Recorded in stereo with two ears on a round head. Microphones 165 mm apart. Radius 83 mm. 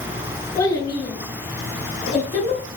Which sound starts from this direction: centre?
A child speaking, at 0.6 s.